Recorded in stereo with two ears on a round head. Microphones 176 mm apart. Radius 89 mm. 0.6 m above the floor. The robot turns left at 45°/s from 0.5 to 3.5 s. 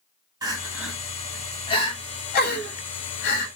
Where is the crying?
20° right (ahead or behind), 0.7 m; by 3.5 s 55° left (ahead or behind), 0.7 m.